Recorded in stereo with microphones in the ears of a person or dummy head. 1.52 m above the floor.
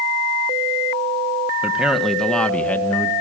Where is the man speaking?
5° right (ahead or behind), 1.6 m; by 3.1 s 15° left (ahead or behind), 2 m.